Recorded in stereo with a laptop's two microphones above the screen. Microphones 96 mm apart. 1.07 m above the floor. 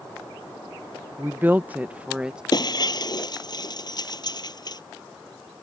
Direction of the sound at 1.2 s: 25° right (ahead or behind).